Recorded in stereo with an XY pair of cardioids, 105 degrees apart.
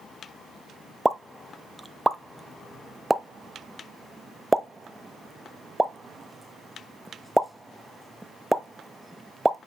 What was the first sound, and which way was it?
A pop, 5° right.